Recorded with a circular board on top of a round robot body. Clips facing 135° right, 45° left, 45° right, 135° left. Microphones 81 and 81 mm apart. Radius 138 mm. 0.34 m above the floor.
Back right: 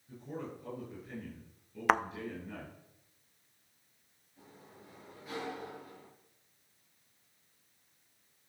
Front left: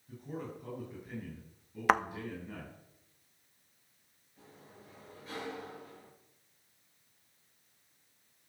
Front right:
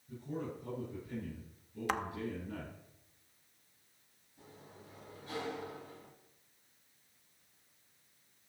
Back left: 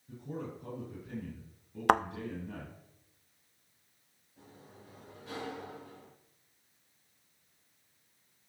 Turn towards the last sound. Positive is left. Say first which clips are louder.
# even, even
turn(degrees=140)